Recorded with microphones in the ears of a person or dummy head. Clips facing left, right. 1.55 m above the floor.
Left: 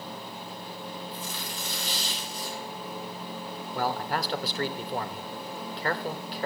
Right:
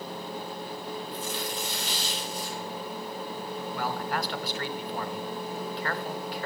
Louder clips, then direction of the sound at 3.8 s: Left 3 dB; 25° left (ahead or behind).